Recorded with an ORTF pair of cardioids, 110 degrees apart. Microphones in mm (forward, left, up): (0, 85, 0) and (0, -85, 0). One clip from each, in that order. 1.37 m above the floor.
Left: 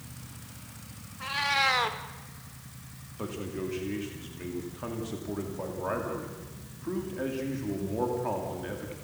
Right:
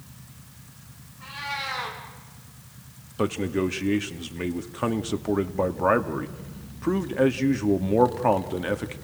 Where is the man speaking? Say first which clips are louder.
Right 10 dB; 65° right, 2 m.